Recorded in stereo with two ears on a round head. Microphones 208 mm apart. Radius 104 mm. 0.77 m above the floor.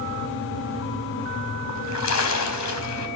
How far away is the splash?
About 4.5 m.